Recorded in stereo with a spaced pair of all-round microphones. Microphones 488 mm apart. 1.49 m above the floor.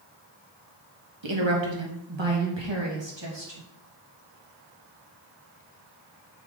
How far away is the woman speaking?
About 1.7 m.